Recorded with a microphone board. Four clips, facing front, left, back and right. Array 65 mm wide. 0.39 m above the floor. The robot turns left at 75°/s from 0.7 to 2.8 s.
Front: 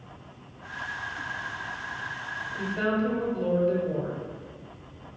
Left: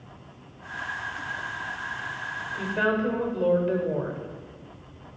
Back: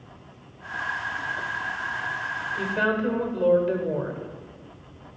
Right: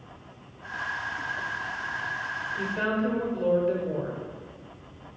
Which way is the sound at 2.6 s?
170° right.